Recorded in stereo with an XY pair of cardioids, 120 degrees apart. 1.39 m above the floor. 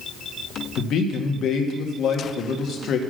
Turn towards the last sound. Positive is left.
turn(degrees=60)